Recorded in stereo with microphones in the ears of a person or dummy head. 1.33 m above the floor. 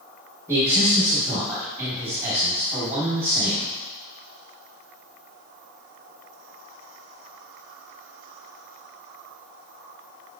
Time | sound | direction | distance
0.5 | a man speaking | 10° right (ahead or behind) | 3 m